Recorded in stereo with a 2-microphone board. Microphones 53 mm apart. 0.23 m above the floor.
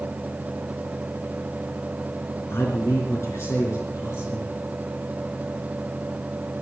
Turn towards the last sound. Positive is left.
turn(degrees=65)  # may be behind; listen again after turning